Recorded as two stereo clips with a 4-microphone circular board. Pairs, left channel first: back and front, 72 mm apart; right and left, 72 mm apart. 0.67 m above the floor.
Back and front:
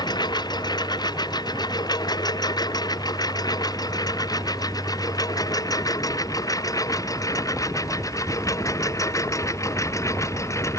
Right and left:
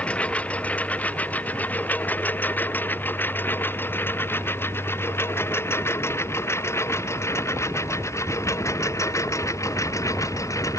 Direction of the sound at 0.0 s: 160° right.